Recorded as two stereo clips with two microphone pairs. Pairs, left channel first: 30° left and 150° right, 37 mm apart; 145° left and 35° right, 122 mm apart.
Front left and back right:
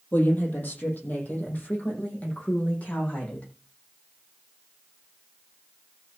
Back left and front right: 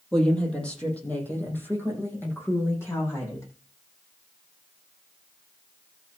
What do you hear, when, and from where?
0.1 s a woman speaking: 60° left, 5.5 m; by 3.5 s 80° left, 9 m